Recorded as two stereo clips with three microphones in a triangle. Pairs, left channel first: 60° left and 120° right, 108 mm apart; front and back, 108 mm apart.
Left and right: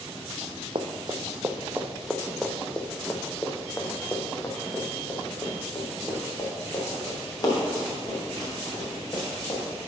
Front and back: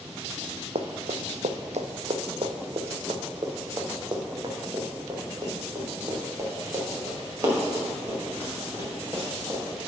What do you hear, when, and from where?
0.8 s running footsteps: 160° right, 0.8 m; by 9.6 s 115° left, 4.5 m